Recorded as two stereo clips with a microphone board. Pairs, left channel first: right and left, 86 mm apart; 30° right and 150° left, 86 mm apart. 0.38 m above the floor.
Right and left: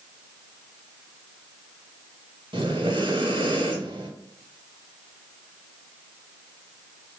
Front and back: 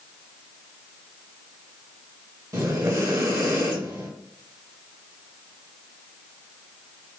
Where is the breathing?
100° left, 0.8 m.